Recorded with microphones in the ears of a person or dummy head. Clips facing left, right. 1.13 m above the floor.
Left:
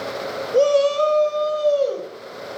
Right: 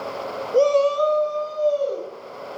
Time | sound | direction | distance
0.5 | a shout | centre (ahead or behind) | 0.7 m